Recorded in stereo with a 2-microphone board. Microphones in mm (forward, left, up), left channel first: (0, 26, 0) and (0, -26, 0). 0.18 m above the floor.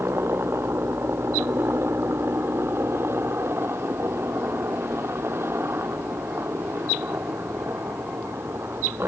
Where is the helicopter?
50° right (ahead or behind).